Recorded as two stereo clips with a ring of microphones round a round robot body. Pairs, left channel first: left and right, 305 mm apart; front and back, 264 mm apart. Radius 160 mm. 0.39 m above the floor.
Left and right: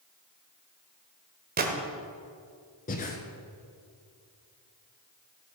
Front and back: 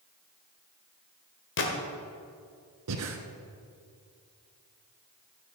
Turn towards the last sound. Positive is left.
turn(degrees=155)